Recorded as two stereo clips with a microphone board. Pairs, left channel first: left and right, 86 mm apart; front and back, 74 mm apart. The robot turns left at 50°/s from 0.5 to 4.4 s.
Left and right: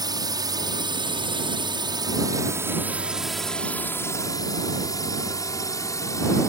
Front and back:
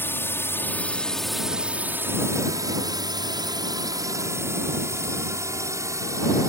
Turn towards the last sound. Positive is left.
turn(degrees=140)